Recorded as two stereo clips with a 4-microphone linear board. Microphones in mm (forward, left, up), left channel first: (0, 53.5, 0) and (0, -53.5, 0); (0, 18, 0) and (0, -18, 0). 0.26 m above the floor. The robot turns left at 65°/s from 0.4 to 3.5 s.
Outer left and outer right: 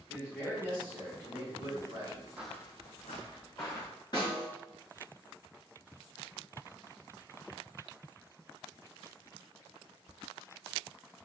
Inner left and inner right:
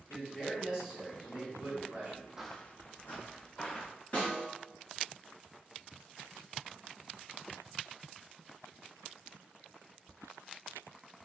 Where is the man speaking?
10° right, 1.6 m; by 2.3 s 135° right, 1.6 m.